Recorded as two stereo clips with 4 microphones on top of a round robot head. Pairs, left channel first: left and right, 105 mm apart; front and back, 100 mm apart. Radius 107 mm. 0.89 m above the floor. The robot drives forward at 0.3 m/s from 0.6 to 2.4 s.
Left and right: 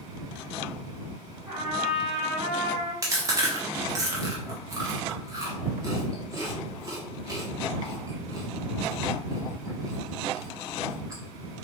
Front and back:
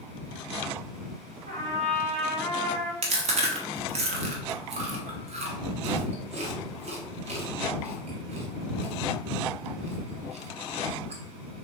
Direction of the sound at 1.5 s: 175° right.